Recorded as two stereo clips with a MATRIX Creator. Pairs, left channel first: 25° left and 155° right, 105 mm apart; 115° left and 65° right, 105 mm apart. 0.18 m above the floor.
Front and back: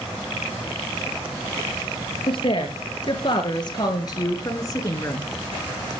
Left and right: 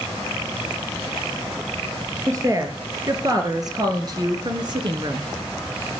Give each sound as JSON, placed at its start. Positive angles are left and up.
{"t": 2.3, "sound": "a woman speaking", "azimuth_deg": -10, "distance_m": 3.5}